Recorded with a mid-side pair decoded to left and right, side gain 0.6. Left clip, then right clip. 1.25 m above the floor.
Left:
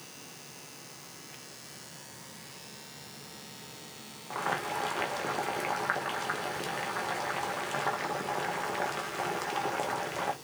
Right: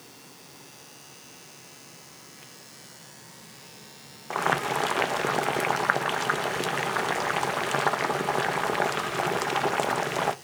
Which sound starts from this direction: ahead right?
Boiling, at 4.3 s.